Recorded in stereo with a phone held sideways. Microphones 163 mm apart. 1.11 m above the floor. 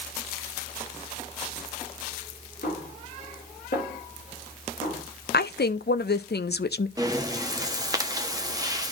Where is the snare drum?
60° left (ahead or behind), 5 m.